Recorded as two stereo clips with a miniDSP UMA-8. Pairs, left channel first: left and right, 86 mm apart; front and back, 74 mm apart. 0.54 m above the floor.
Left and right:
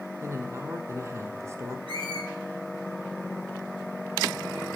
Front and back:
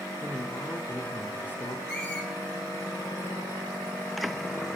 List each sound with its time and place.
0.2 s a man speaking: 55° right, 1.0 m
1.9 s a squeak: 70° right, 5 m